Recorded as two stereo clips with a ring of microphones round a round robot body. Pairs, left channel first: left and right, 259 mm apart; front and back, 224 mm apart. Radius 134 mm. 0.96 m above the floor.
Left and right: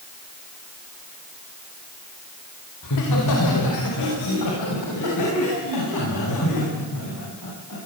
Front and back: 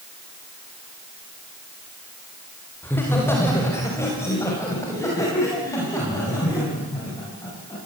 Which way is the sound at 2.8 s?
80° left.